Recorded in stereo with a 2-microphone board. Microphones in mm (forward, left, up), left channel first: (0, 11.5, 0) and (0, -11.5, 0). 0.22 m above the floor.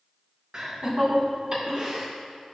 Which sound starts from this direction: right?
Laughter, at 0.5 s.